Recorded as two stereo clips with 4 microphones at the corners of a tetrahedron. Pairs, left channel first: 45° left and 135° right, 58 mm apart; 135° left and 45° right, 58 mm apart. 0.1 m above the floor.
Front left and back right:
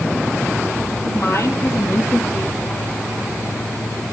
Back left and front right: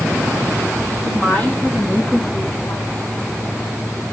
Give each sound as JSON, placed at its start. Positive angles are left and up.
{"t": 1.0, "sound": "a woman speaking", "azimuth_deg": 60, "distance_m": 3.0}